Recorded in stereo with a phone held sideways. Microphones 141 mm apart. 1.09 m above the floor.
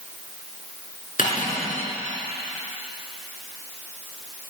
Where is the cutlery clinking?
85° left, 7.5 m.